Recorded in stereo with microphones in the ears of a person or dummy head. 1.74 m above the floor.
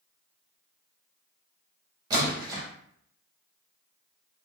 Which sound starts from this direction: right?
A splash, at 2.1 s.